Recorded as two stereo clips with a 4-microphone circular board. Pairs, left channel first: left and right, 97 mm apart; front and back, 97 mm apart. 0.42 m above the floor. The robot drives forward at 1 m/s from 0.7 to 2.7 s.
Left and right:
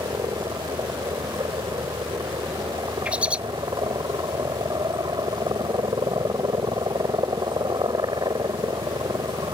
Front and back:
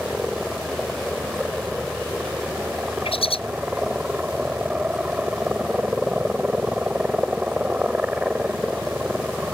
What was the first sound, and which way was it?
A helicopter, 95° right.